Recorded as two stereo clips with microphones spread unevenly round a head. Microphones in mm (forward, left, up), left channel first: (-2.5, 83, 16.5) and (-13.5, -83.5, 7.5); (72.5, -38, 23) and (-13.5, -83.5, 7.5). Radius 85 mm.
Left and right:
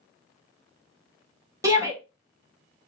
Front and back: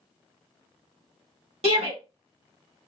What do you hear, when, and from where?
1.6 s a shout: 165° right, 2 m